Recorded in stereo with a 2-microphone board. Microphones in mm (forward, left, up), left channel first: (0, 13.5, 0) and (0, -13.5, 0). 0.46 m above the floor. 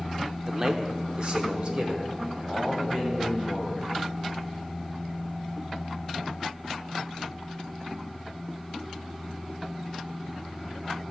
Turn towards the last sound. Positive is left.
turn(degrees=-50)  # may be behind; listen again after turning